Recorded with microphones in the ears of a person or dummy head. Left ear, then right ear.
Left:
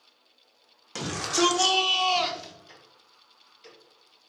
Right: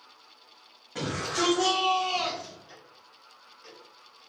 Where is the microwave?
I don't hear a microwave.